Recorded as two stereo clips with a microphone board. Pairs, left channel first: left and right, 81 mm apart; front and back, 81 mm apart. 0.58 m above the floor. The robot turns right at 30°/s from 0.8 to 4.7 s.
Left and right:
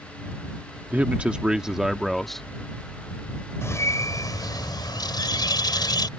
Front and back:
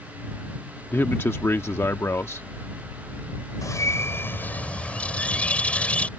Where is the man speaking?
35° right; by 2.5 s 10° left.